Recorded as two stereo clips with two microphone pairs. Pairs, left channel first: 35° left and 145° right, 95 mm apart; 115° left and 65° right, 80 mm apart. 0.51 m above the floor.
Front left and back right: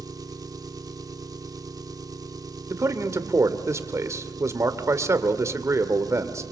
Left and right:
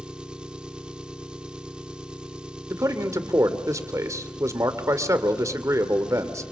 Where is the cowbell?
No cowbell in this recording.